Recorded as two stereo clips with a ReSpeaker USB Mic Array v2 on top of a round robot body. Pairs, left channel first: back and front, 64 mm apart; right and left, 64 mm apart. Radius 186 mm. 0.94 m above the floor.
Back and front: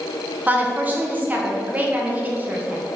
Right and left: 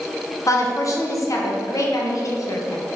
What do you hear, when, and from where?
0.5 s a woman speaking: 65° right, 1.6 m